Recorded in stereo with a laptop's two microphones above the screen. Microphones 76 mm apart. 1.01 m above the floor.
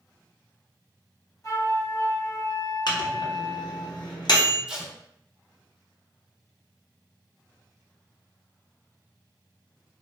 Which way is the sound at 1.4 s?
45° left (ahead or behind).